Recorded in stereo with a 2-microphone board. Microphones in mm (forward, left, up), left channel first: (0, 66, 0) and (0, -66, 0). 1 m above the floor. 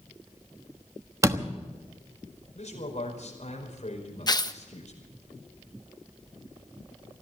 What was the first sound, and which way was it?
A door slam, 25° right (ahead or behind).